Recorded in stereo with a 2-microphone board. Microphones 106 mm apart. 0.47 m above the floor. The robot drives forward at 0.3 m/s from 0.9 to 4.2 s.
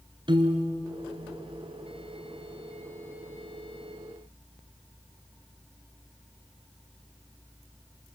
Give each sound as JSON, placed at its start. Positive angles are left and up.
{"t": 0.3, "sound": "a piano", "side_deg": -45, "distance_m": 2.0}